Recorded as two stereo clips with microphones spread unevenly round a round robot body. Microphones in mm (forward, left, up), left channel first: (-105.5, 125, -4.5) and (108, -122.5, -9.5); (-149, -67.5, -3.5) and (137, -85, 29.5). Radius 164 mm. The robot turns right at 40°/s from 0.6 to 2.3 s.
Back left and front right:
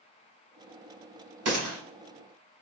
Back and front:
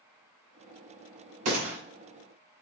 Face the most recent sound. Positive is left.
turn(degrees=10)